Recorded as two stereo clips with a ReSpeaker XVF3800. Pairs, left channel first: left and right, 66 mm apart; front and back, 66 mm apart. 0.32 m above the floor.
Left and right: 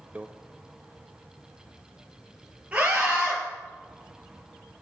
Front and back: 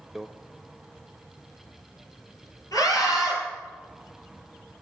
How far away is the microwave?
About 0.7 m.